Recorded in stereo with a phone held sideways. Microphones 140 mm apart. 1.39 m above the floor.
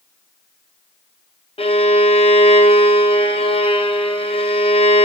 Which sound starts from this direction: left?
A violin, at 1.6 s.